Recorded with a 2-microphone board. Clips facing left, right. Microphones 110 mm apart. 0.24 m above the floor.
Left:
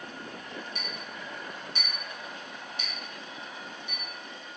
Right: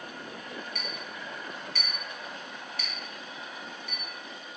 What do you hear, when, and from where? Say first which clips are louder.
0.8 s a clink: right 1 dB; 25° left (ahead or behind), 1.0 m